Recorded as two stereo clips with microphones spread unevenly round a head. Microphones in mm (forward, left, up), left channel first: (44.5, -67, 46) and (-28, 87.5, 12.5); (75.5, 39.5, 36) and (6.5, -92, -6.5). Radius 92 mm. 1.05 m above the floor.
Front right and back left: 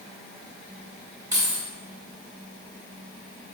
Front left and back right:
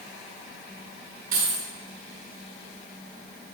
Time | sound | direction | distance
1.3 | keys jangling | 170° right | 4 m